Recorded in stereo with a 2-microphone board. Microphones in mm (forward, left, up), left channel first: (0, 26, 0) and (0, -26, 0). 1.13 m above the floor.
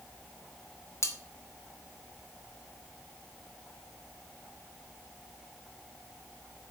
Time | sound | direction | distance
1.0 | cutlery clinking | 55° left (ahead or behind) | 1.5 m